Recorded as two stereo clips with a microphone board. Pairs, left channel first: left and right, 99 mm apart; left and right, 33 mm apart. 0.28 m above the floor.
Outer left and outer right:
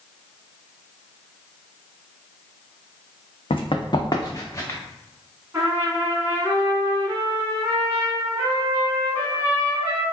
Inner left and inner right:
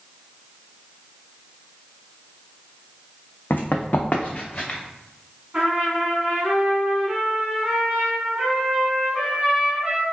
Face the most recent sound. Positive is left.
turn(degrees=-25)  # may be behind; listen again after turning